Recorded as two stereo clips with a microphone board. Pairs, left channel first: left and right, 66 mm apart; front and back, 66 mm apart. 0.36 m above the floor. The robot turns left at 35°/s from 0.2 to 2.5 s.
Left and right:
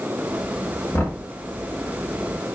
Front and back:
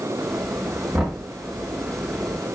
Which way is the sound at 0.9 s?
120° left.